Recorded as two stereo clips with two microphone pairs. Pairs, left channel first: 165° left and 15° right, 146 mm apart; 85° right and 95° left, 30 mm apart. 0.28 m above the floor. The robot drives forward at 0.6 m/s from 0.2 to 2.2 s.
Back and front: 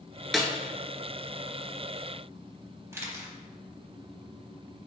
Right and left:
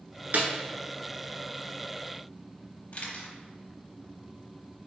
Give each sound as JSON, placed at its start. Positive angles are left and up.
{"t": 0.3, "sound": "a snare drum", "azimuth_deg": 75, "distance_m": 0.9}
{"t": 2.9, "sound": "a camera shutter", "azimuth_deg": -80, "distance_m": 0.9}